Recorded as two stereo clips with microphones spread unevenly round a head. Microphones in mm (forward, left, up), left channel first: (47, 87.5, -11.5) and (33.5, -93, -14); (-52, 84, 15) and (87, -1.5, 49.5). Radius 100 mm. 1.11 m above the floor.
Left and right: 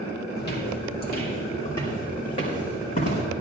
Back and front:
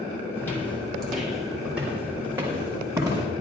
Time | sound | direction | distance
0.4 | footsteps | 65° left | 2.5 m